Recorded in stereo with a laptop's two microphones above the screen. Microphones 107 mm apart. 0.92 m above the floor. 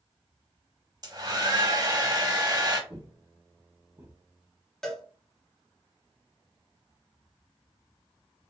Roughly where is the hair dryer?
Right.